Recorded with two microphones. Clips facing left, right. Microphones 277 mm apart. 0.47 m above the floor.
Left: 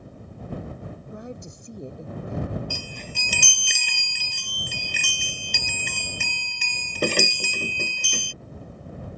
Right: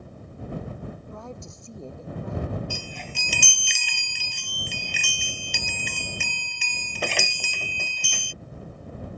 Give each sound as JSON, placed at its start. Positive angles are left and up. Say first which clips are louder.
{"t": 1.1, "sound": "a woman speaking", "louder": "left 2 dB", "side_deg": 20}
{"t": 2.7, "sound": "a chime", "louder": "even", "side_deg": 45}